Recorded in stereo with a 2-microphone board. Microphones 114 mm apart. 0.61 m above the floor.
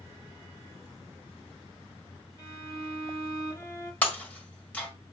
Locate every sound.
2.4 s a violin: 30° left (ahead or behind), 3 m
4.0 s breaking glass: 15° left (ahead or behind), 1.6 m